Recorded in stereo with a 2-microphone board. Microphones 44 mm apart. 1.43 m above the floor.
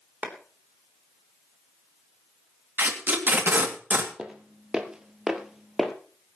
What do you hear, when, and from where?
0.2 s a clap: 40° right (ahead or behind), 3.5 m
2.8 s tape being pulled: 40° right (ahead or behind), 2.5 m
4.2 s footsteps: 15° right (ahead or behind), 1.9 m; by 5.9 s 5° right (ahead or behind), 1.8 m